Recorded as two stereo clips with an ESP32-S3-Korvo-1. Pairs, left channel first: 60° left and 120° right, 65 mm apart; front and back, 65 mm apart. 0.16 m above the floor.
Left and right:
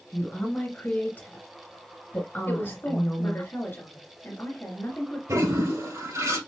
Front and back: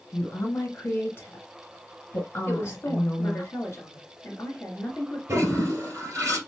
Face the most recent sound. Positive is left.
turn(degrees=-135)